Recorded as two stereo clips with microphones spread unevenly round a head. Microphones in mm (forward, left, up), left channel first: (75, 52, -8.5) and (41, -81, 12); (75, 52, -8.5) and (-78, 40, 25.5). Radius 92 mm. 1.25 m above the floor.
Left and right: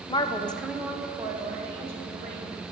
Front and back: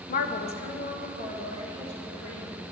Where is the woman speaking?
25° left, 0.7 m; by 2.5 s 60° right, 2 m.